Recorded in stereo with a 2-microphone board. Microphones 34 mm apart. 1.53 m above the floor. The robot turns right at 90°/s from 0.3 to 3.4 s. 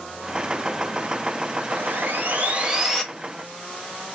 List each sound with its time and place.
1.7 s sawing: 115° right, 1.6 m; by 3.0 s 10° left, 1.6 m